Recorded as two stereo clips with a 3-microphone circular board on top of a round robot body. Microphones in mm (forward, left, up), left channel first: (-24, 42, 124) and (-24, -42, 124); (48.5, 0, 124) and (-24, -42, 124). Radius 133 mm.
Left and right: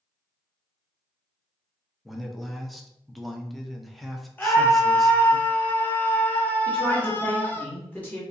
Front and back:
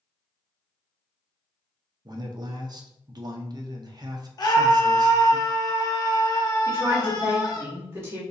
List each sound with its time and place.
2.0 s a man speaking: straight behind, 0.7 m
4.4 s a scream: 30° left, 1.0 m
6.7 s a woman speaking: 155° left, 1.5 m